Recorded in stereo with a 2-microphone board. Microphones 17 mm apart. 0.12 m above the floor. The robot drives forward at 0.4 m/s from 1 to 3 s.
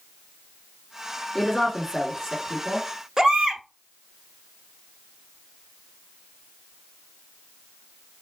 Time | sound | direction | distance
1.4 | a woman speaking | 15° left (ahead or behind) | 1.5 m
3.2 | a baby crying | 35° right (ahead or behind) | 0.9 m